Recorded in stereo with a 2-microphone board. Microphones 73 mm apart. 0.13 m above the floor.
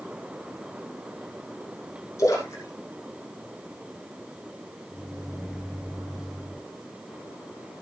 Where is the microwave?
5° left (ahead or behind), 3.5 m.